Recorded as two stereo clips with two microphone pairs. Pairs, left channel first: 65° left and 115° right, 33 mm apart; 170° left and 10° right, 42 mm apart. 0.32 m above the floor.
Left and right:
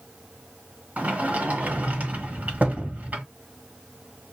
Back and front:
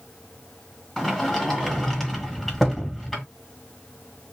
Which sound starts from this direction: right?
A sliding door, at 1.0 s.